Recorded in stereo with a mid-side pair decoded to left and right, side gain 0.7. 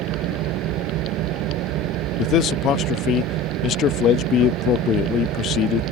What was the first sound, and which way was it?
An engine running, 60° right.